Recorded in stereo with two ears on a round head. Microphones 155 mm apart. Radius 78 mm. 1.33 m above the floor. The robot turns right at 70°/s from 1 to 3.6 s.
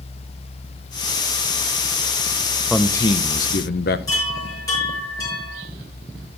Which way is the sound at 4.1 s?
25° left (ahead or behind).